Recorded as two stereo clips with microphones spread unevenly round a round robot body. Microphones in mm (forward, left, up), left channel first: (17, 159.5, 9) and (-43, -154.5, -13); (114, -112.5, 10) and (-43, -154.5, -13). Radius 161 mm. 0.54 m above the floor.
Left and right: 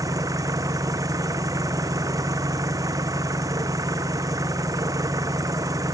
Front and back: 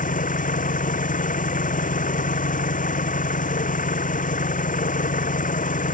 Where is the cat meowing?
I don't hear a cat meowing.